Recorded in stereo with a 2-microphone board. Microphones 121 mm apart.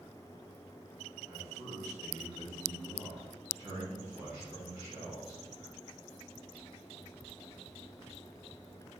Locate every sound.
1.3 s a man speaking: 20° right (ahead or behind), 2.5 m